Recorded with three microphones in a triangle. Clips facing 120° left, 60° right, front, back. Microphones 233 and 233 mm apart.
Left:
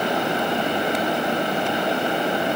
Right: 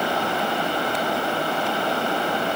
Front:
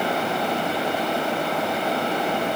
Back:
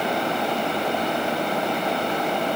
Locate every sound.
Only background noise.